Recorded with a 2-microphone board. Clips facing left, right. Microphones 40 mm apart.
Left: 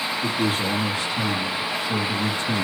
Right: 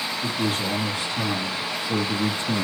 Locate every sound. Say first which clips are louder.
0.2 s a man speaking: left 2 dB; 15° left (ahead or behind), 1.6 m; by 2.6 s 30° right (ahead or behind), 1.9 m